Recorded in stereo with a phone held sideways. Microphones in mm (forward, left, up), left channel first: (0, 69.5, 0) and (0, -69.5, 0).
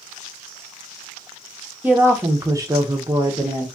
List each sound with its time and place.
1.8 s a woman speaking: 10° right (ahead or behind), 0.9 m; by 3.7 s 25° right (ahead or behind), 0.7 m